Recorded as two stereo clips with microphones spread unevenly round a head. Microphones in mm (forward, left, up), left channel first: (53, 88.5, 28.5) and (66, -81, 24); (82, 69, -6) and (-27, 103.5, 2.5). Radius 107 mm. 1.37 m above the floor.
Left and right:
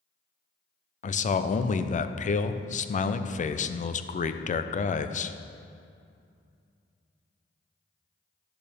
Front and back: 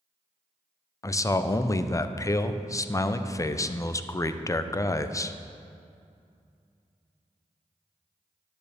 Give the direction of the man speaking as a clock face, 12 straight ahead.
10 o'clock.